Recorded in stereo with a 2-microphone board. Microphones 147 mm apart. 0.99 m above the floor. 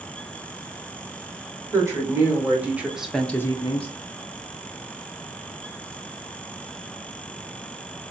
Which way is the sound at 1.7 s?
20° right (ahead or behind).